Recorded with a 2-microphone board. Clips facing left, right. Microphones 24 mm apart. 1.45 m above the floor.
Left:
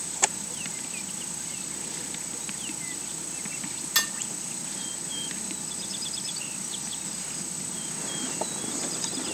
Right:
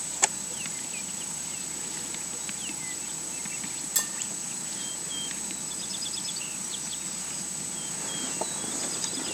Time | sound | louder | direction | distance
4.0 | dishes clattering | left 7 dB | 45° left (ahead or behind) | 1.2 m